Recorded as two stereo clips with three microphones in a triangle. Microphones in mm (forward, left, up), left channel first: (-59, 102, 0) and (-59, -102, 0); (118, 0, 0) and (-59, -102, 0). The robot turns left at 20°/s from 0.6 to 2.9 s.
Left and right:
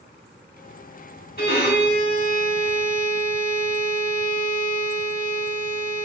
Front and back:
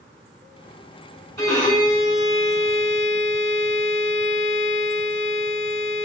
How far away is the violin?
About 1.1 m.